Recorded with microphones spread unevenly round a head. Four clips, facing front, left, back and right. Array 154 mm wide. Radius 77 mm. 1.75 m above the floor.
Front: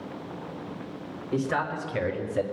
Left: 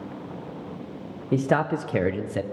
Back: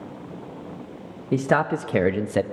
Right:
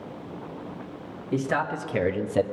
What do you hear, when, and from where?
1.3 s a man speaking: 140° left, 1.4 m; by 2.4 s 145° right, 0.8 m